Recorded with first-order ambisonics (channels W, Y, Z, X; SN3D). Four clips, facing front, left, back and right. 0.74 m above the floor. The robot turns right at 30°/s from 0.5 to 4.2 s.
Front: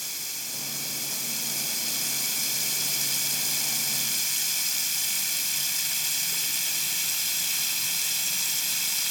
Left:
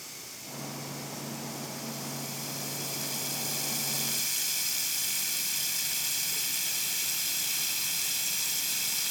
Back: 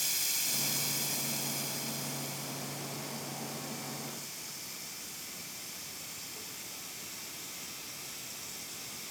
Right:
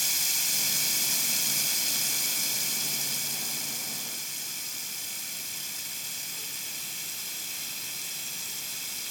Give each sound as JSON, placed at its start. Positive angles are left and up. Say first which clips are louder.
{"t": 0.0, "sound": "running water", "louder": "right 15 dB, back 1 dB", "azimuth_deg": -95, "distance_m": 1.7}